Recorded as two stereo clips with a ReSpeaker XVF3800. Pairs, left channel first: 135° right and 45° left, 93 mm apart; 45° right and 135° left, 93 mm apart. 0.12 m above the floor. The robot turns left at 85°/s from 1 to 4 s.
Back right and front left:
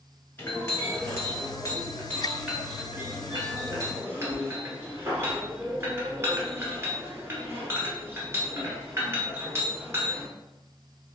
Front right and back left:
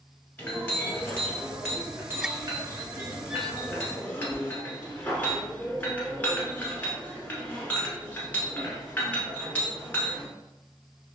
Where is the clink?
95° right, 1.1 m; by 10.3 s 10° left, 1.1 m.